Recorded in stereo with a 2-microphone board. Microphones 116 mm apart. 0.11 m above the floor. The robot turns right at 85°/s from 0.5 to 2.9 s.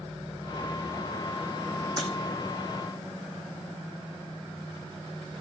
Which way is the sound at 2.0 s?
35° right (ahead or behind).